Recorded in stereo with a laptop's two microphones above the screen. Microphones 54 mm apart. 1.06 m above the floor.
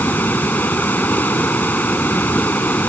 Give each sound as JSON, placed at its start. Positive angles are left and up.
{"t": 0.0, "sound": "running water", "side_deg": 35}